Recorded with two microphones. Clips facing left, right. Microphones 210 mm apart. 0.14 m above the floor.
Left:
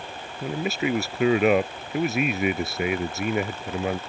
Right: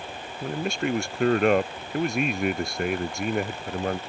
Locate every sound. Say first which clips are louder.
0.4 s a man speaking: left 1 dB; 5° left (ahead or behind)